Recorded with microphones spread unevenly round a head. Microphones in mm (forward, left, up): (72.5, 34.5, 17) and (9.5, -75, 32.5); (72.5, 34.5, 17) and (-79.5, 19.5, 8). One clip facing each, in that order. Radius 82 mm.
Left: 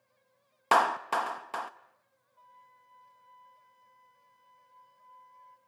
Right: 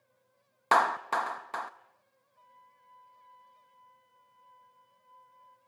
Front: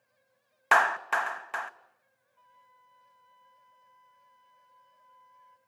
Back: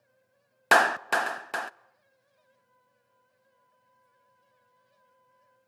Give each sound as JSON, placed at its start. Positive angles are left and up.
{"t": 0.7, "sound": "a clap", "azimuth_deg": 140, "distance_m": 0.5}
{"t": 2.4, "sound": "a flute", "azimuth_deg": 10, "distance_m": 1.9}